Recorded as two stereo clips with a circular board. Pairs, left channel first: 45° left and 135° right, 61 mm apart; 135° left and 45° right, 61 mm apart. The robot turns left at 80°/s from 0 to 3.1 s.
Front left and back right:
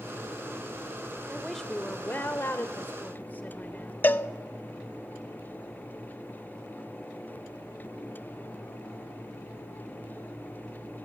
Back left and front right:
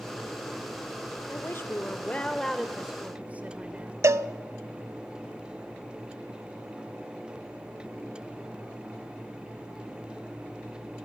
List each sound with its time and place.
1.3 s a woman speaking: 150° left, 1.4 m; by 3.9 s 5° left, 1.4 m
4.0 s a cowbell: 10° right, 0.6 m